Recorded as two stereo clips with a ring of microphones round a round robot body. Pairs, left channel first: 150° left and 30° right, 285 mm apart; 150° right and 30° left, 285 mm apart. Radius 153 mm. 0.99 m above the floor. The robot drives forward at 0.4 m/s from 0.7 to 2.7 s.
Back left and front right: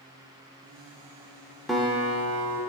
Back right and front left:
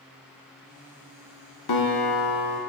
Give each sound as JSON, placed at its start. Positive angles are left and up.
{"t": 1.7, "sound": "a guitar", "azimuth_deg": -120, "distance_m": 1.2}